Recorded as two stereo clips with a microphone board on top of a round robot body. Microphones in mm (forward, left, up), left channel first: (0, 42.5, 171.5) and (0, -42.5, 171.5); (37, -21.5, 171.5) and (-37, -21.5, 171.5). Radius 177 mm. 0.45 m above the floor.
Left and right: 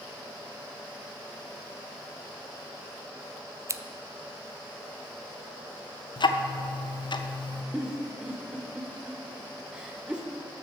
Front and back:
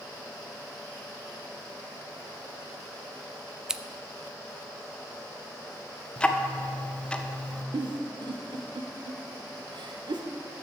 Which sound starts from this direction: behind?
A giggle, at 7.7 s.